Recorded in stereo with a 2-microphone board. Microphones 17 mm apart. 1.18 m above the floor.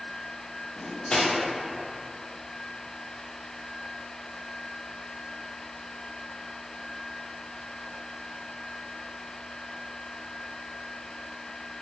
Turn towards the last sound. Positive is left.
turn(degrees=55)  # may be behind; listen again after turning